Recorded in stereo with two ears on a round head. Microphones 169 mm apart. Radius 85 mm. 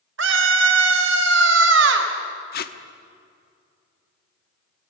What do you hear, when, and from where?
0.2 s a scream: 75° right (ahead or behind), 4 m
2.5 s tape being pulled: 50° left (ahead or behind), 1.2 m